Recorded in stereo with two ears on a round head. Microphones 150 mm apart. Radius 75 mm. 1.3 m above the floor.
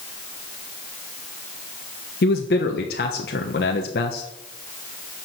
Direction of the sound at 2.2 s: 65° left (ahead or behind).